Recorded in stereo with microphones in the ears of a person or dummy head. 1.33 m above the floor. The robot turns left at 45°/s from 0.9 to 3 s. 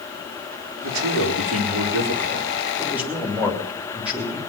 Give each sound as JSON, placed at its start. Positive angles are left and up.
{"t": 0.8, "sound": "a man speaking", "azimuth_deg": -75, "distance_m": 3.5}